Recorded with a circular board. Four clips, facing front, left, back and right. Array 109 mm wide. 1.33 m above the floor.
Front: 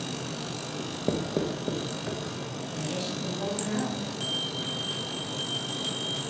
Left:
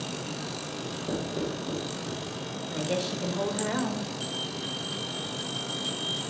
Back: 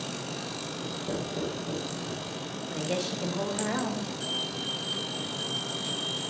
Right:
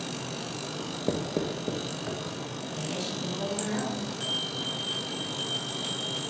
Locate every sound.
0.8 s writing: 40° right, 0.8 m
2.7 s a woman speaking: 140° left, 1.4 m
4.2 s a bell: 40° right, 2.5 m